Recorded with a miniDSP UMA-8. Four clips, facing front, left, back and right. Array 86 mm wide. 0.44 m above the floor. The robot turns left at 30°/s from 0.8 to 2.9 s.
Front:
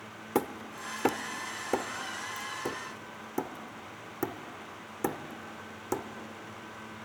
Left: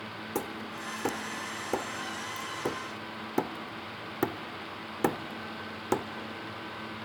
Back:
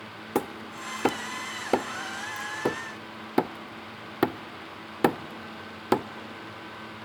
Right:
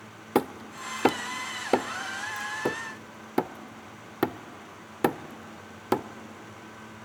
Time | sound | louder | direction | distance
0.3 | hammering | right 9 dB, back 1 dB | 100° right | 0.6 m